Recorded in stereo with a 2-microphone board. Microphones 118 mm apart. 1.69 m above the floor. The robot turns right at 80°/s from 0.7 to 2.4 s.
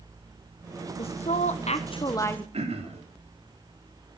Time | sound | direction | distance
1.0 | a woman speaking | 50° left | 1.1 m
2.5 | throat clearing | 65° right (ahead or behind) | 3.5 m